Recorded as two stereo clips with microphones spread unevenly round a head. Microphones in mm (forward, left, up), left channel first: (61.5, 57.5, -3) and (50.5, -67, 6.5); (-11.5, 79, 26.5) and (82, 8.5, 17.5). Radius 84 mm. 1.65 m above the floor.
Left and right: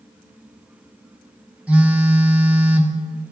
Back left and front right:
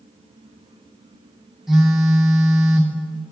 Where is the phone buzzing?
135° right, 0.7 m.